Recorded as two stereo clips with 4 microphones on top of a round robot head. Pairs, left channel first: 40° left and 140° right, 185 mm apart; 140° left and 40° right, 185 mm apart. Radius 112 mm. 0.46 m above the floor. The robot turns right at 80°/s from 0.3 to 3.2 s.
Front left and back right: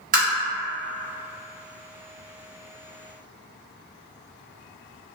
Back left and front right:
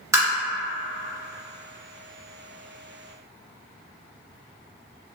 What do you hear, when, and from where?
0.1 s tapping: 110° right, 1.8 m